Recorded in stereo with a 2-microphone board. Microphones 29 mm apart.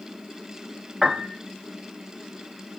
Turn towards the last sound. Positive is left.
turn(degrees=-25)  # may be behind; listen again after turning